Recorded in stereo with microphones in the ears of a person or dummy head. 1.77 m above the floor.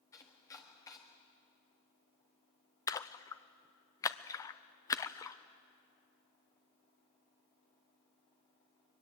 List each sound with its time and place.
0.1 s chopping: 20° left (ahead or behind), 1.5 m
2.9 s a splash: 20° left (ahead or behind), 0.6 m